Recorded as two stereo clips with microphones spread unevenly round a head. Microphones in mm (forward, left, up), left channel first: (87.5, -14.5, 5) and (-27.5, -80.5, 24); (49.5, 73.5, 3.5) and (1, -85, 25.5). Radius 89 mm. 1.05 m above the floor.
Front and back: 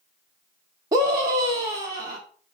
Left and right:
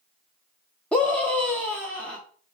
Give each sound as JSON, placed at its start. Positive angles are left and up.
{"t": 0.9, "sound": "a scream", "azimuth_deg": 145, "distance_m": 0.7}